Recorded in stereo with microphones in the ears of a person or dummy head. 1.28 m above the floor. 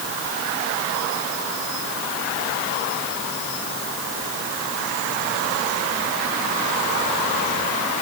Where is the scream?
I don't hear a scream.